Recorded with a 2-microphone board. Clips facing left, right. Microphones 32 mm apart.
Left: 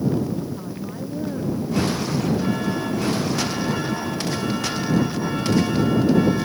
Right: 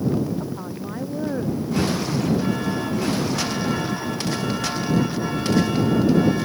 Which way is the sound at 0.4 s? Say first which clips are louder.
Even; 25° right (ahead or behind).